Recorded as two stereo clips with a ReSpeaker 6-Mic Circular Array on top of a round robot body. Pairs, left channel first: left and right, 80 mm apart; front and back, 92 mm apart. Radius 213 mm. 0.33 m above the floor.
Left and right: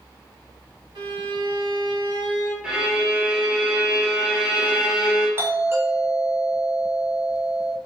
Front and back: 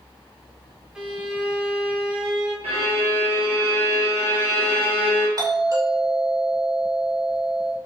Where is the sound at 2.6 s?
170° right, 2 m.